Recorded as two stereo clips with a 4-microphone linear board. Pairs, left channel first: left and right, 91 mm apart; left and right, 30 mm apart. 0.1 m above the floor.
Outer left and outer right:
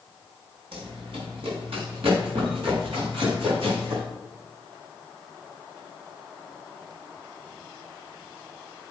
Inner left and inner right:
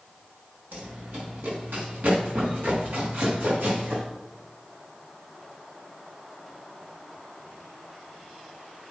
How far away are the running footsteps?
About 6 m.